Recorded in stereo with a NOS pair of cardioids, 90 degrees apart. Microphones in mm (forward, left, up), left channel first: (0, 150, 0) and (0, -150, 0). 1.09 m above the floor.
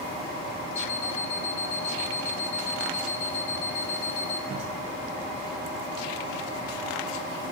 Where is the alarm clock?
45° left, 0.7 m.